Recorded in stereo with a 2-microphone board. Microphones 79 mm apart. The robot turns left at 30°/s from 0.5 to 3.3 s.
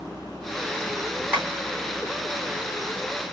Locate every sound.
1.3 s tapping: 20° right (ahead or behind), 2.5 m; by 1.5 s 25° right (ahead or behind), 2.5 m